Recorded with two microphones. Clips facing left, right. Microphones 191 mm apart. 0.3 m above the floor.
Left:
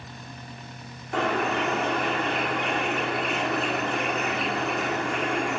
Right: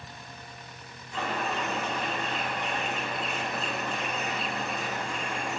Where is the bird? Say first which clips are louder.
Left 7 dB; 65° left (ahead or behind), 7 m.